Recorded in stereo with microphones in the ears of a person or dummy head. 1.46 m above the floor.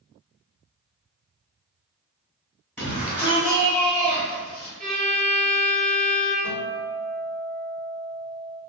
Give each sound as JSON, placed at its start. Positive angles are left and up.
{"t": 2.8, "sound": "a shout", "side_deg": 15, "distance_m": 1.6}
{"t": 4.8, "sound": "a violin", "side_deg": 5, "distance_m": 1.0}
{"t": 6.4, "sound": "a guitar", "side_deg": 5, "distance_m": 1.4}